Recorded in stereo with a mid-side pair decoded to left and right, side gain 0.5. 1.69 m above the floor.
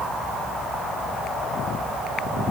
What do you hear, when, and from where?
Only background noise.